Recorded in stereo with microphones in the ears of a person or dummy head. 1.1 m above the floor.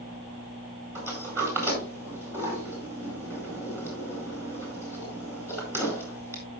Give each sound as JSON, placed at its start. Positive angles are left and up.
{"t": 0.9, "sound": "a sliding door", "side_deg": -5, "distance_m": 4.5}